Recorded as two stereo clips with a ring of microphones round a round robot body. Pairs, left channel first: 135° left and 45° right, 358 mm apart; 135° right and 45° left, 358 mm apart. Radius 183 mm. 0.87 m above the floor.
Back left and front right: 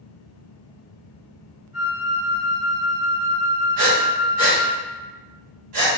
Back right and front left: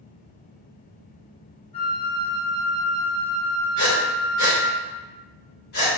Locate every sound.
1.7 s a flute: 80° right, 1.6 m
3.8 s breathing: 80° right, 1.5 m